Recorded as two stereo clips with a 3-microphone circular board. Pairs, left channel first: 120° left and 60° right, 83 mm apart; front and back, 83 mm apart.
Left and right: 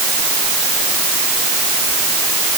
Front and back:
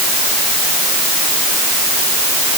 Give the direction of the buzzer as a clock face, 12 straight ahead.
No buzzer in this recording.